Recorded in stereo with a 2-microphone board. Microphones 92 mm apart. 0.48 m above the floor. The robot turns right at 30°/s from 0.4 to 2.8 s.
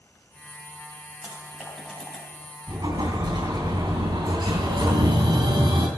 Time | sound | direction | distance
1.2 | typing on a keyboard | 20° right (ahead or behind) | 3.5 m
2.7 | an explosion | 55° right (ahead or behind) | 3 m